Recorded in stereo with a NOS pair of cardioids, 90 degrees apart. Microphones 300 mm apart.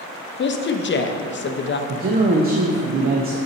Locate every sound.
0.4 s a woman speaking: 40° left, 0.8 m
1.9 s a man speaking: 30° right, 0.8 m